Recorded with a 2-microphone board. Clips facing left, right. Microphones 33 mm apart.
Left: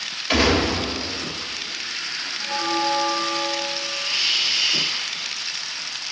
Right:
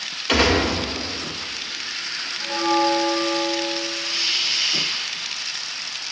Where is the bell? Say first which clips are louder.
Right 4 dB; 45° right (ahead or behind), 2.5 m.